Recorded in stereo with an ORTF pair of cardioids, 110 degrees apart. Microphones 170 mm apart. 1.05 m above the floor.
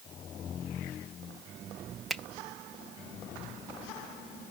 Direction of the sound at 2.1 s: Straight ahead.